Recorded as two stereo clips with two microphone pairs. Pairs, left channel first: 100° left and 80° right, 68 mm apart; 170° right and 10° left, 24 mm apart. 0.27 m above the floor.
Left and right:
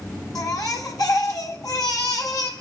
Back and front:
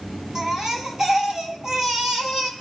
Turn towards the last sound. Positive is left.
turn(degrees=75)